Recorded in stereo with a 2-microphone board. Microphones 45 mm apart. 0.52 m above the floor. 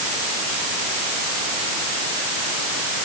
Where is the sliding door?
No sliding door in this recording.